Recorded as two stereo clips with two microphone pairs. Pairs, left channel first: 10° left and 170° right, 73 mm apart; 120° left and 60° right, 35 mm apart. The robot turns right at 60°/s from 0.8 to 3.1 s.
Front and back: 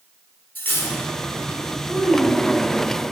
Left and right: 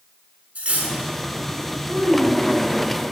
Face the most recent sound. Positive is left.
turn(degrees=155)